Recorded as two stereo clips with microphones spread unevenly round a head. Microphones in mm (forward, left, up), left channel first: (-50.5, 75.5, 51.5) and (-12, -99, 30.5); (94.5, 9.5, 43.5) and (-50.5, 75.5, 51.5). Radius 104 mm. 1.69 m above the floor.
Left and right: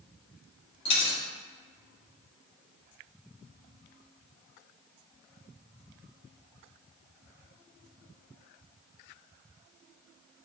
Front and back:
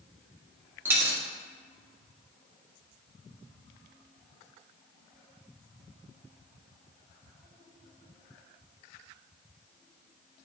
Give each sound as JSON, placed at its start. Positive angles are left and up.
{"t": 0.8, "sound": "a dropped coin", "azimuth_deg": 95, "distance_m": 1.3}